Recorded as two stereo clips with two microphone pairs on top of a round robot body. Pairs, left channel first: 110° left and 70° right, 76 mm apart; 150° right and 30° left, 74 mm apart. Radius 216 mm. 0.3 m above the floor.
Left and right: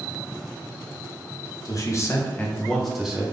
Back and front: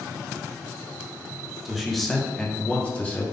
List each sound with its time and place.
1.6 s a man speaking: 125° left, 1.5 m; by 3.2 s 120° right, 1.3 m